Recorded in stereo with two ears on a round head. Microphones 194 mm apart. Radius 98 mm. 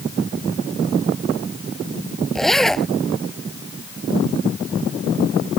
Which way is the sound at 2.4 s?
Centre (ahead or behind).